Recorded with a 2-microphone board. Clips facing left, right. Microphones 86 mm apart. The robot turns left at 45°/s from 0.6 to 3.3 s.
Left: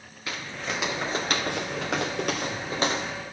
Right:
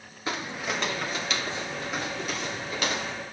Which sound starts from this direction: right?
Footsteps, at 0.3 s.